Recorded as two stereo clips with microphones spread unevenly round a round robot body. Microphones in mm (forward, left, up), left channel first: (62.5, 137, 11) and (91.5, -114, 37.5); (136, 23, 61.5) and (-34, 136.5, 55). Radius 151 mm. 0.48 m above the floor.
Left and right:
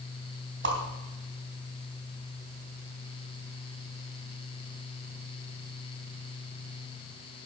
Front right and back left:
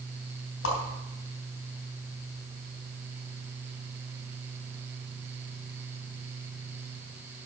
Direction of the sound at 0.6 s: 40° right.